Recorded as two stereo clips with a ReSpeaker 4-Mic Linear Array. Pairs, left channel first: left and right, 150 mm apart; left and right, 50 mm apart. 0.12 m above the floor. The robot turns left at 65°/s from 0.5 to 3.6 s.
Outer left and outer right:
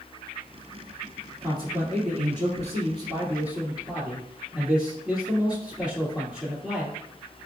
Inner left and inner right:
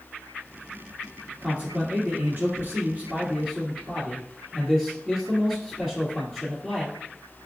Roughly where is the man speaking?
Ahead right.